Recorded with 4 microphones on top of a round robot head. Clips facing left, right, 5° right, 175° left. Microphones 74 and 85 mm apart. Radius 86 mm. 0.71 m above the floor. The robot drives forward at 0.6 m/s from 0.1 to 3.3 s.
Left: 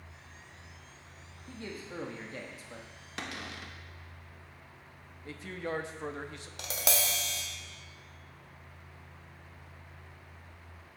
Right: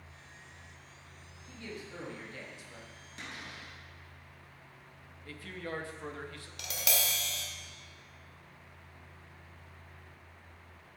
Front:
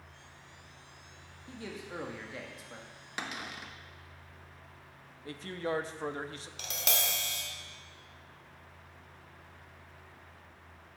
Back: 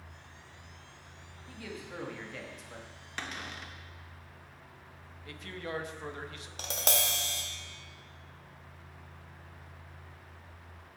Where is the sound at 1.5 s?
50° left, 1.8 m; by 2.9 s 85° left, 1.5 m.